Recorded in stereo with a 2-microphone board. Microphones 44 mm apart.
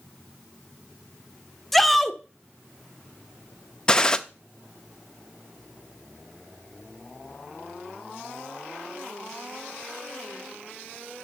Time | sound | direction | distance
1.7 | a shout | 5° left (ahead or behind) | 1.0 m
3.9 | a gunshot | 20° left (ahead or behind) | 0.6 m